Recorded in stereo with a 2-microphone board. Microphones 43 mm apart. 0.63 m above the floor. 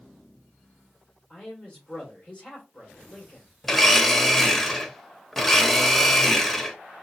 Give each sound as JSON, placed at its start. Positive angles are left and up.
{"t": 1.3, "sound": "a man speaking", "side_deg": 25, "distance_m": 1.8}
{"t": 3.6, "sound": "a blender", "side_deg": 5, "distance_m": 0.8}